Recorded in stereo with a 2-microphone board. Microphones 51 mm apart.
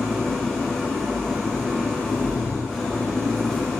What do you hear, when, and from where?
0.0 s an engine running: 10° left (ahead or behind), 2 m